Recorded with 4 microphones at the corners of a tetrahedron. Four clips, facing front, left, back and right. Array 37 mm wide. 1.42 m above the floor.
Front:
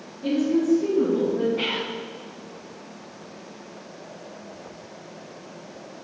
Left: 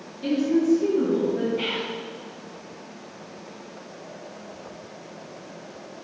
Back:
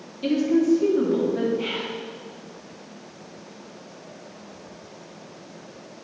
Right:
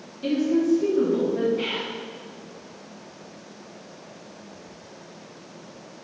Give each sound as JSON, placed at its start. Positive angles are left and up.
{"t": 0.2, "sound": "a woman speaking", "azimuth_deg": -175, "distance_m": 2.5}
{"t": 1.6, "sound": "whispering", "azimuth_deg": 15, "distance_m": 0.8}